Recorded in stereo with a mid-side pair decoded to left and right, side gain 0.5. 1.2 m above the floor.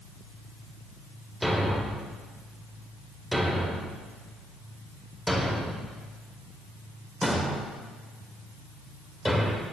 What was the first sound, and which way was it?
A thud, 5° left.